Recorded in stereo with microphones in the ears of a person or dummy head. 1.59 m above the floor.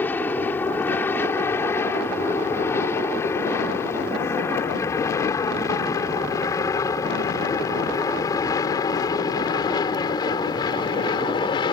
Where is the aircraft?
10° left (ahead or behind); by 11.7 s 25° left (ahead or behind).